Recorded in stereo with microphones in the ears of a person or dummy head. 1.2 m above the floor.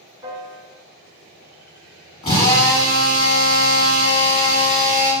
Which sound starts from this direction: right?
A piano, at 0.2 s.